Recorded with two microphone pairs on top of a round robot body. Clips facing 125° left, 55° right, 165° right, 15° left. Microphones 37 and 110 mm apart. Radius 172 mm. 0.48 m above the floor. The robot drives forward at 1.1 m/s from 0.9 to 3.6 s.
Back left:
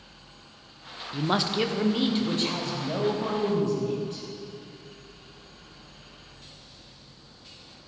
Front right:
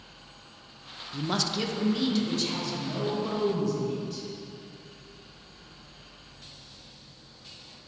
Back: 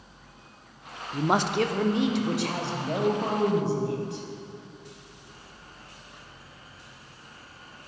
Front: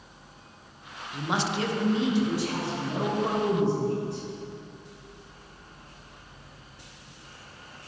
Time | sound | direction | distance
1.1 | a man speaking | 155° right | 0.9 m